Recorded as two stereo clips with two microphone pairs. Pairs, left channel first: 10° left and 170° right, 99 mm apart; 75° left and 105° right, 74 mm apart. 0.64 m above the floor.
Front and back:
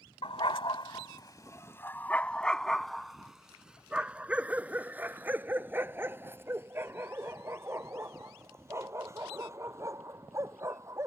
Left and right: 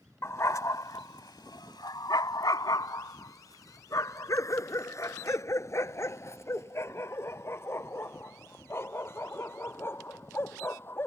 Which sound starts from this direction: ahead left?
A dog barking, at 0.2 s.